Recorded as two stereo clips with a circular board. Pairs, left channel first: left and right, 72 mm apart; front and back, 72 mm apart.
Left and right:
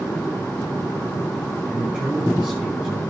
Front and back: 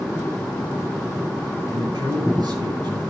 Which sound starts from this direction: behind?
A man speaking, at 1.7 s.